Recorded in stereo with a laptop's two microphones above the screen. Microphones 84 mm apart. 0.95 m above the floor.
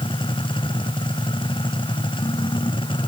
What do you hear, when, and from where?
0.0 s a machine running: 85° left